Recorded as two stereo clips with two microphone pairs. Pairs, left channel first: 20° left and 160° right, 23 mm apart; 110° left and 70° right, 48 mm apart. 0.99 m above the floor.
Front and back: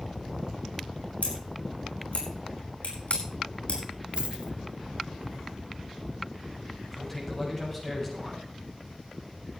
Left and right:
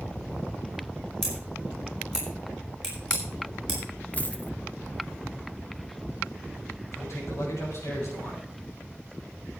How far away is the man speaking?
About 6 m.